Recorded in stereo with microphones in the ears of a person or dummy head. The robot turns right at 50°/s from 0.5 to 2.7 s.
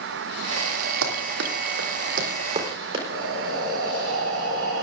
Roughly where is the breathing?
Right.